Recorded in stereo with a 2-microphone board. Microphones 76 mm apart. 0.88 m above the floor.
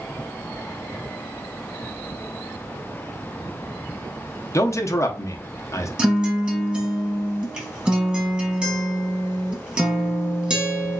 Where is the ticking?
I don't hear ticking.